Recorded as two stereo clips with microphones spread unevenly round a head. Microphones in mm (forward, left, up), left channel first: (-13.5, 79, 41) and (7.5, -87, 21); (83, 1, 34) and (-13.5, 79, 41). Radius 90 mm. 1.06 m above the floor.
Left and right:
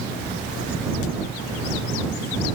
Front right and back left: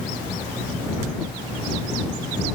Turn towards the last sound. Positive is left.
No sound to turn to.